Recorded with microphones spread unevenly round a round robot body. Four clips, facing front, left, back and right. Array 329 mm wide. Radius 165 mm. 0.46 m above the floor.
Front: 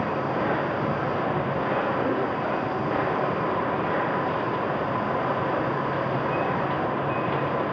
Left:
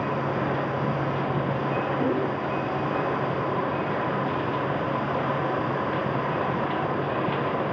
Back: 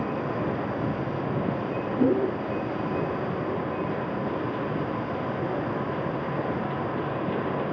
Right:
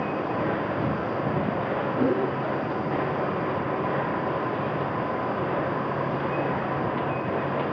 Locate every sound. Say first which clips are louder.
2.0 s a whoosh: right 4 dB, back 2 dB; 170° right, 1.7 m